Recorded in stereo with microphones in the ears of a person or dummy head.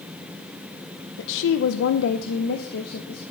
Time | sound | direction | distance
1.2 | a woman speaking | 65° left (ahead or behind) | 0.6 m